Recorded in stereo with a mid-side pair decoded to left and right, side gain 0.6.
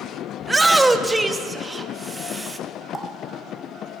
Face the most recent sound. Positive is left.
turn(degrees=-15)